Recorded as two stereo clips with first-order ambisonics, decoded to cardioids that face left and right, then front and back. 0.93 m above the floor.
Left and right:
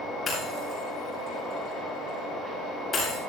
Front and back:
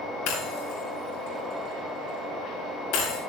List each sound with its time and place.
0.3 s breaking glass: 15° left, 9.5 m